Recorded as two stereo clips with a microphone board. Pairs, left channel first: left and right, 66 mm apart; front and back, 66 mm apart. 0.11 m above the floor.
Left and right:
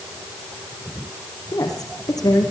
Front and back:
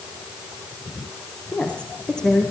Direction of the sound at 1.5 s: 70° left.